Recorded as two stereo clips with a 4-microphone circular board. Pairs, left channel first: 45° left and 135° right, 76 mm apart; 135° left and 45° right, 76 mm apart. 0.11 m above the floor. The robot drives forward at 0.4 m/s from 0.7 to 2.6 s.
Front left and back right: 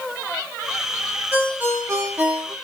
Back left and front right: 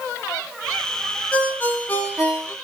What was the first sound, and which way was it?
A ringtone, 170° right.